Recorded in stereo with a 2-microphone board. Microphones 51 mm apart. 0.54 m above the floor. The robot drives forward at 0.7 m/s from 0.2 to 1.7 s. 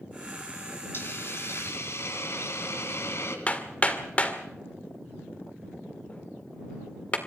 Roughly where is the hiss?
Left.